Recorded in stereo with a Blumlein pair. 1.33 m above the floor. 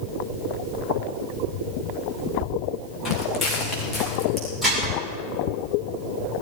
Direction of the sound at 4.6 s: 5° right.